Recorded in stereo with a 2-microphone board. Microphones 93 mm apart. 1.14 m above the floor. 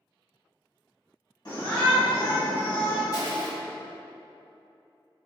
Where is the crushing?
45° left (ahead or behind), 0.7 m.